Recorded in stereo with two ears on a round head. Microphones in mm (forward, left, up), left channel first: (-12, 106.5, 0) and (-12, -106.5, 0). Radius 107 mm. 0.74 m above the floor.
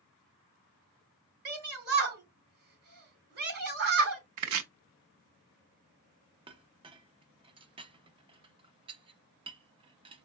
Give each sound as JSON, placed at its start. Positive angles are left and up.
{"t": 1.4, "sound": "a shout", "side_deg": -45, "distance_m": 4.0}
{"t": 4.4, "sound": "chopping", "side_deg": -80, "distance_m": 0.8}
{"t": 6.5, "sound": "a clink", "side_deg": -20, "distance_m": 0.5}